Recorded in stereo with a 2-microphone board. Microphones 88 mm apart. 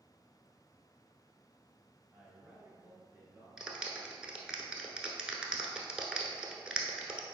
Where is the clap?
10° right (ahead or behind), 1.0 m.